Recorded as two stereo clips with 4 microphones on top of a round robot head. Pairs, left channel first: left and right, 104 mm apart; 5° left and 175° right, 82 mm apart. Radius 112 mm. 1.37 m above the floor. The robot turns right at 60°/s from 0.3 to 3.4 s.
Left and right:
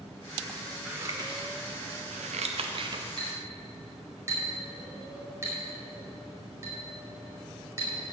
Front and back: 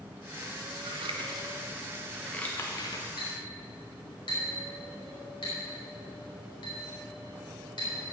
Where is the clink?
40° right, 5 m; by 8.1 s 25° right, 5 m.